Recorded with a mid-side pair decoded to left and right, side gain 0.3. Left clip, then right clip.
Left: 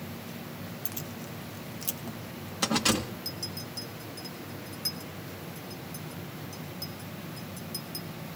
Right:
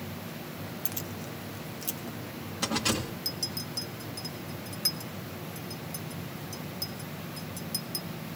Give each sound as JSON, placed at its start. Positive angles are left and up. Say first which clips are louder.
{"t": 0.8, "sound": "keys jangling", "louder": "right 2 dB", "azimuth_deg": -15, "distance_m": 1.0}
{"t": 3.2, "sound": "a clink", "louder": "right 3 dB", "azimuth_deg": -45, "distance_m": 1.5}